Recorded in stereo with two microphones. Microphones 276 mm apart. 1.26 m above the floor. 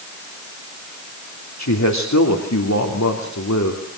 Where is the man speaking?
85° left, 3 m.